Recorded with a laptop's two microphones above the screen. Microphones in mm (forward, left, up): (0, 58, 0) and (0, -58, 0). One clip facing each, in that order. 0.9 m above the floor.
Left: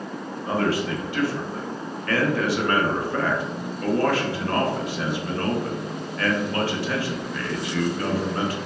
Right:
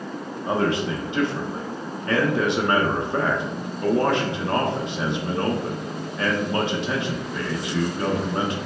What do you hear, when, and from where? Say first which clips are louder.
0.5 s a man speaking: right 1 dB; 20° right (ahead or behind), 0.6 m